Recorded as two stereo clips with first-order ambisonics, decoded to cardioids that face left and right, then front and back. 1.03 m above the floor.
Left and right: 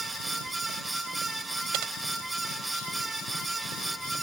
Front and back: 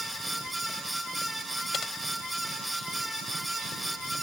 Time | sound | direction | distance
1.7 | typing on a keyboard | 70° right | ?